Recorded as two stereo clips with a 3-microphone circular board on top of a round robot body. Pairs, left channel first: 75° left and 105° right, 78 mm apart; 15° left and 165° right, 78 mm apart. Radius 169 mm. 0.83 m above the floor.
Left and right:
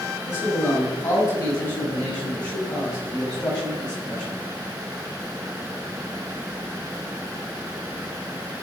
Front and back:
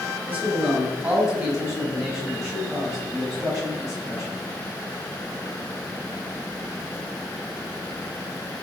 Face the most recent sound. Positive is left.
turn(degrees=155)